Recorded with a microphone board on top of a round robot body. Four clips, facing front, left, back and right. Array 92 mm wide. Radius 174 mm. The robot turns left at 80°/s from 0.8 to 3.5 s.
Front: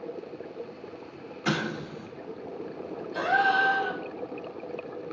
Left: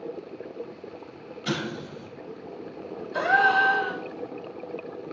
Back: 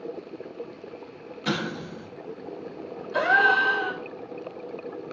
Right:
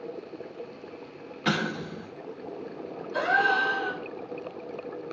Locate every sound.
1.4 s an explosion: 70° right, 1.4 m; by 2.1 s 120° right, 1.4 m
3.1 s a gasp: 170° left, 1.3 m; by 4.0 s 140° left, 1.3 m